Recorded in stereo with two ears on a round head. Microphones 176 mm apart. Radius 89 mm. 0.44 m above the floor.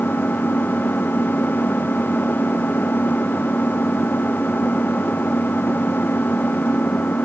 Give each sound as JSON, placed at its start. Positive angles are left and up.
{"t": 0.0, "sound": "an engine running", "side_deg": 10}